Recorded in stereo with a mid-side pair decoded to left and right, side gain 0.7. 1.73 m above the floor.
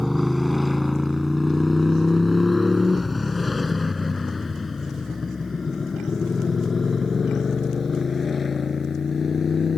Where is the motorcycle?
5° left; by 9.8 s 25° left.